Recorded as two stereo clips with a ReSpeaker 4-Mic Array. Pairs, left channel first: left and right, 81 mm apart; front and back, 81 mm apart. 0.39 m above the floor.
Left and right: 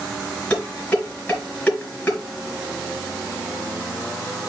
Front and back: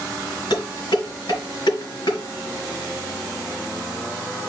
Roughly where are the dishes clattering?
Ahead.